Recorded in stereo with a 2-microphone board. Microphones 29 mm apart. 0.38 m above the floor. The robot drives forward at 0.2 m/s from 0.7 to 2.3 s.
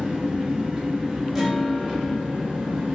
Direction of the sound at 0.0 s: 20° right (ahead or behind).